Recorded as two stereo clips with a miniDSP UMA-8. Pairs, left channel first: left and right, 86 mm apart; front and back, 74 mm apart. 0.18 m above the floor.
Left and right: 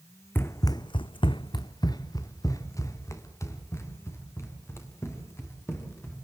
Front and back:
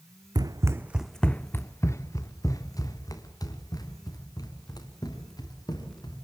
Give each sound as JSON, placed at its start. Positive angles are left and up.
{"t": 0.3, "sound": "running footsteps", "azimuth_deg": 155, "distance_m": 0.9}